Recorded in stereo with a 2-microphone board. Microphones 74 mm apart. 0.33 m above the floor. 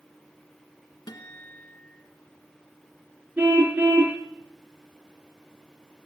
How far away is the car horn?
About 2 m.